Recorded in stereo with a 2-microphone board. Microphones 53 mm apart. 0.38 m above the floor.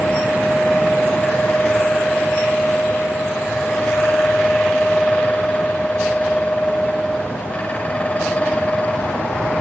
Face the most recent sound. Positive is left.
No sound to turn to.